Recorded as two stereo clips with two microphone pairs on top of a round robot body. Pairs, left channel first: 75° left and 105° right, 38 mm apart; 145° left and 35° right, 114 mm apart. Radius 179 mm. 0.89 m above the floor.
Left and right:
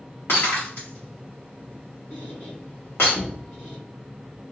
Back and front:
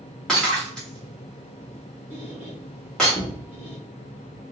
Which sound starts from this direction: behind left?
A squeak, at 2.1 s.